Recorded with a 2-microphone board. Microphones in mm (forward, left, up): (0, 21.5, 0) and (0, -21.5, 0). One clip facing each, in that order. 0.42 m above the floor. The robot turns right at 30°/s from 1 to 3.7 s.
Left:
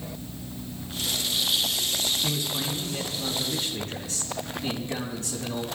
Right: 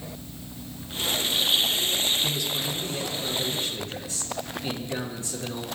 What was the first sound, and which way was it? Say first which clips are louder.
A man speaking: right 1 dB; 25° left.